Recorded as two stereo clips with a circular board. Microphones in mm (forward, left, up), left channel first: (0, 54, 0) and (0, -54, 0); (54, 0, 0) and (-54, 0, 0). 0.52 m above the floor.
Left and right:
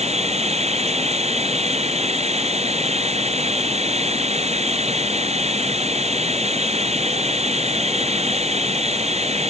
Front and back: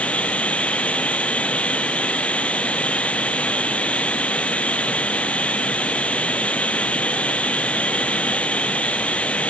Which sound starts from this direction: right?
Running water, at 0.0 s.